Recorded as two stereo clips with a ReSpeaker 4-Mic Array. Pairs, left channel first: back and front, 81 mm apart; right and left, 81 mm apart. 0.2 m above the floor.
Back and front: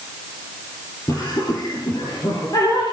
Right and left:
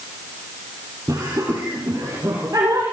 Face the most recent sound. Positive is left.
turn(degrees=140)